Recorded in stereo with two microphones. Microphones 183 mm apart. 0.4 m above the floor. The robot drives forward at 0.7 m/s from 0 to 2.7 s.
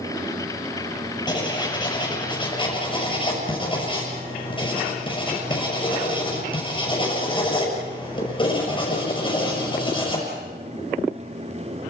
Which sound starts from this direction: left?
Writing, at 1.3 s.